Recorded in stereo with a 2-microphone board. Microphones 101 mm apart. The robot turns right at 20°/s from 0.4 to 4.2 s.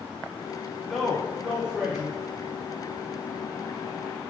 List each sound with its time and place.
0.9 s a man speaking: 5° left (ahead or behind), 1.1 m; by 2.2 s 5° right (ahead or behind), 1.1 m